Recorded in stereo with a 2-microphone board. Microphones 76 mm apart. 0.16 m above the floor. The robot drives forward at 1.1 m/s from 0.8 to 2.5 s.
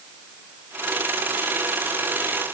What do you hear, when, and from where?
Only background noise.